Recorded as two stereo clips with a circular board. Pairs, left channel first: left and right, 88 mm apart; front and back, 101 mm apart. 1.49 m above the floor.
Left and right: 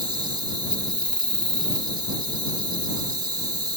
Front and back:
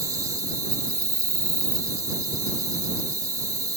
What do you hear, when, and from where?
0.0 s an insect: 125° right